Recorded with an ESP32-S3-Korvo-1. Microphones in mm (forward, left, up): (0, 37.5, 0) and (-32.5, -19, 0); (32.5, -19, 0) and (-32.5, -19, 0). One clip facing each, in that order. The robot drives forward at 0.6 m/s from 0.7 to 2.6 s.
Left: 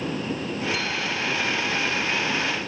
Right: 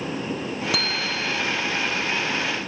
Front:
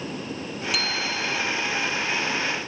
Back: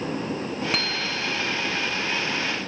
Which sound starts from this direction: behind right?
A bicycle bell, at 0.7 s.